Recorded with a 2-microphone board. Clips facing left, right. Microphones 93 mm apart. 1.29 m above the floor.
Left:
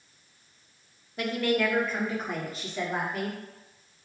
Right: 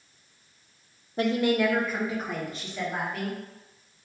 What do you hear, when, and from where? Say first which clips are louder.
1.2 s a woman speaking: right 3 dB; 35° right (ahead or behind), 0.5 m; by 3.4 s 5° left (ahead or behind), 1.6 m